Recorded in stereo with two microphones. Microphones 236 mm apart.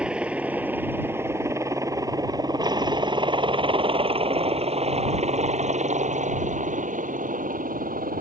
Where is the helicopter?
5° right (ahead or behind); by 8.2 s 40° right (ahead or behind).